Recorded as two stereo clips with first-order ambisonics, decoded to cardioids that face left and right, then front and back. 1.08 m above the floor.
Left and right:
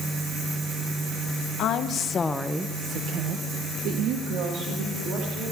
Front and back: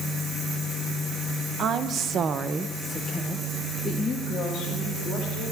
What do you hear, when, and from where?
1.6 s a woman speaking: 130° left, 0.9 m; by 5.5 s 65° right, 2.5 m